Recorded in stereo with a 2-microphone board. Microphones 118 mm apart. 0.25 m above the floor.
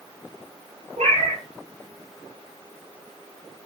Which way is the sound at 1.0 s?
70° right (ahead or behind).